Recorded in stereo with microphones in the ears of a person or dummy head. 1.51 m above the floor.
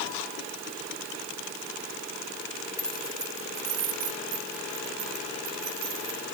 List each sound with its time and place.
2.8 s keys jangling: 15° left (ahead or behind), 0.9 m; by 6.2 s 70° right (ahead or behind), 4 m